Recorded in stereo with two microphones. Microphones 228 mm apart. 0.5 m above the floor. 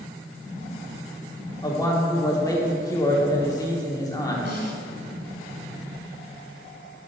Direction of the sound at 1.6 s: 15° left (ahead or behind).